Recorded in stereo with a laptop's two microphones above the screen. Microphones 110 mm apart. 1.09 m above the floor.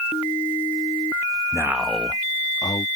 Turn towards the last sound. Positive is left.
turn(degrees=40)  # may be behind; listen again after turning